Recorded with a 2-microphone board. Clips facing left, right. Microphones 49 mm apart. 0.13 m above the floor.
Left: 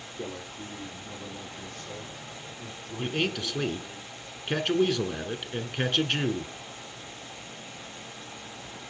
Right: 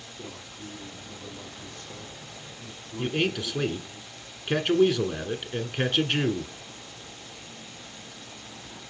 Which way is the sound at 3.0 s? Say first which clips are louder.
Right 2 dB; 5° right (ahead or behind).